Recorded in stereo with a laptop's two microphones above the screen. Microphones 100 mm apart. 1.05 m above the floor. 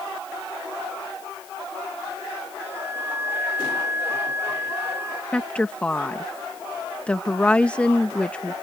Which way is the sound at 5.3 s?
10° left (ahead or behind).